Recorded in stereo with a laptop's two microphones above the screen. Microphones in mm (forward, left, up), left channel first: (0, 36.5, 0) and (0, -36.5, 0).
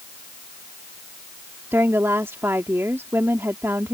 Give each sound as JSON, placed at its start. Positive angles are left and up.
{"t": 1.7, "sound": "a woman speaking", "side_deg": -35}